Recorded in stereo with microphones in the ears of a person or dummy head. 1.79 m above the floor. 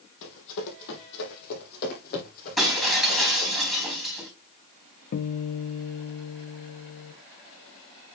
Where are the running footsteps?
60° left (ahead or behind), 3.5 m; by 3.5 s 40° left (ahead or behind), 4.5 m.